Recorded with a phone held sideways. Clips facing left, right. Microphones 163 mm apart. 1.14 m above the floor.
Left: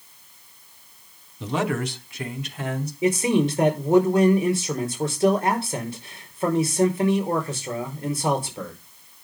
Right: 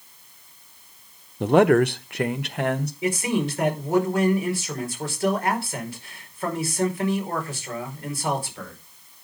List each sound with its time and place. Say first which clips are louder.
1.4 s a man speaking: right 9 dB; 60° right (ahead or behind), 0.7 m; by 2.9 s 75° right (ahead or behind), 1.5 m
3.0 s a man speaking: left 5 dB; 25° left (ahead or behind), 4.5 m